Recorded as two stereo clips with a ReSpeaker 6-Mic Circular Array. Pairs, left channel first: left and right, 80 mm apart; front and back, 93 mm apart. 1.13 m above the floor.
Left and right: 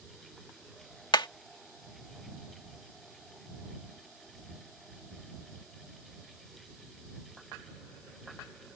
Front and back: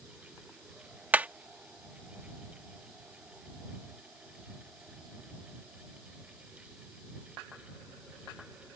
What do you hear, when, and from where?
1.1 s hammering: 110° left